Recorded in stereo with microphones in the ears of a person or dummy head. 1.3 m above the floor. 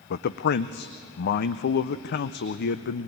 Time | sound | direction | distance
0.1 | a man speaking | 55° left (ahead or behind) | 0.5 m